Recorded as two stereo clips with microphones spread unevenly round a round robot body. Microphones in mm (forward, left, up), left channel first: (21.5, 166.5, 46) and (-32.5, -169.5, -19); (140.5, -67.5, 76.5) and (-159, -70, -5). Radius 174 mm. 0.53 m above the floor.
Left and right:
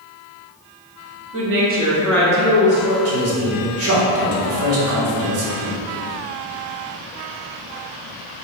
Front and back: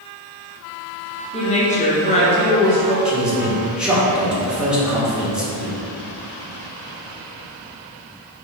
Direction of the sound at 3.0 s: 105° right.